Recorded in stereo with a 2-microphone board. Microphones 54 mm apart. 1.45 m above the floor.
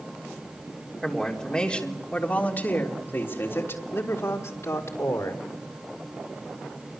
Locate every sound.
1.0 s a woman speaking: 10° left (ahead or behind), 3.5 m; by 5.4 s 70° left (ahead or behind), 4 m